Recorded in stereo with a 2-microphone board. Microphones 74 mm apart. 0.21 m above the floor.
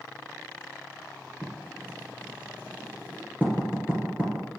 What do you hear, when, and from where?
1.4 s writing: 25° right (ahead or behind), 2.5 m